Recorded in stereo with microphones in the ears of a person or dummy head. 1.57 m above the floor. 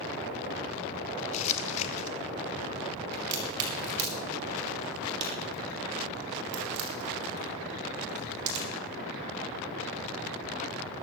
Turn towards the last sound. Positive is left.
turn(degrees=-60)  # may be behind; listen again after turning